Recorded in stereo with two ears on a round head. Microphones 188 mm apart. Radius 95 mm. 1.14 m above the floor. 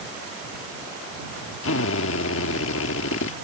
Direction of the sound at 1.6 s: 70° left (ahead or behind).